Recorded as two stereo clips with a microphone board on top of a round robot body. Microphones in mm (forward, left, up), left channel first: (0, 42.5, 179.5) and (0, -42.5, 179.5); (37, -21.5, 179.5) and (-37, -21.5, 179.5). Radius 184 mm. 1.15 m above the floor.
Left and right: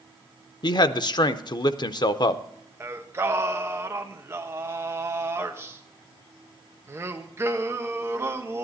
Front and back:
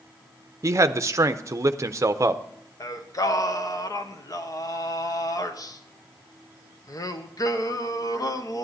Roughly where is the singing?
Ahead right.